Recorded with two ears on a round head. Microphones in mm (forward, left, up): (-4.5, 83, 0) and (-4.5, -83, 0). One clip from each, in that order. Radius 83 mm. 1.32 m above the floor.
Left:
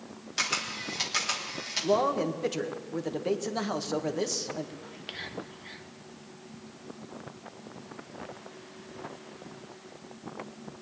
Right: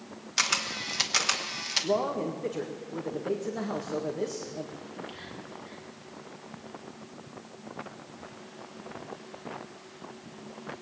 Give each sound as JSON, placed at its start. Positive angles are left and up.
{"t": 0.4, "sound": "a camera shutter", "side_deg": -30, "distance_m": 1.3}
{"t": 1.8, "sound": "a man speaking", "side_deg": 70, "distance_m": 1.5}
{"t": 4.8, "sound": "whispering", "side_deg": 50, "distance_m": 1.4}